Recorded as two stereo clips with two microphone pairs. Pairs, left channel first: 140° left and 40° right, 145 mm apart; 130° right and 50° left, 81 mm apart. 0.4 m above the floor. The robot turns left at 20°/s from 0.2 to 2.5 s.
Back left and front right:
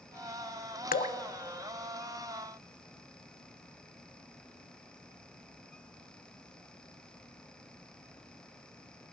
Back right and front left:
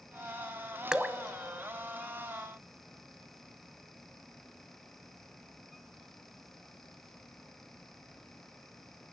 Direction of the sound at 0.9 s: 135° left.